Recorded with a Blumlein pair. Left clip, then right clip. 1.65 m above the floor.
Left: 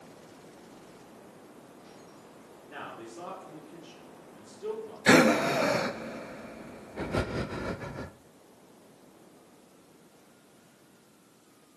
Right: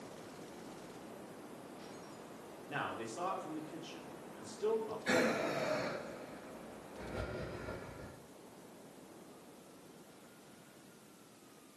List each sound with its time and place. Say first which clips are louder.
2.7 s a man speaking: right 2 dB; 60° right, 6 m
5.1 s breathing: left 12 dB; 40° left, 0.8 m